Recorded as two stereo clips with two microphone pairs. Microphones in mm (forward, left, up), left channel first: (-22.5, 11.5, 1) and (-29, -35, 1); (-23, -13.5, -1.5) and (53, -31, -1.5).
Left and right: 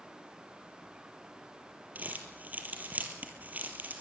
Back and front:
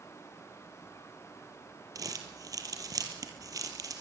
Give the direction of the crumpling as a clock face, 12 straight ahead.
2 o'clock.